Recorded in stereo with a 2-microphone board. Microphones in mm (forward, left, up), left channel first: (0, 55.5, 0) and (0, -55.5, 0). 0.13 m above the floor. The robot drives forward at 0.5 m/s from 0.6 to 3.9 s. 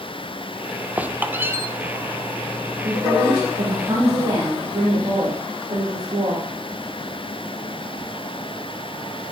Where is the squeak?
15° right (ahead or behind), 0.9 m; by 1.7 s 25° right (ahead or behind), 0.6 m.